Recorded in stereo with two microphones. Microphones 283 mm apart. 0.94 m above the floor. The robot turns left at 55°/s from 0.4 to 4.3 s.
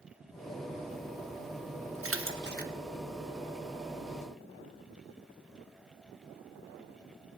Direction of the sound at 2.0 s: 50° right (ahead or behind).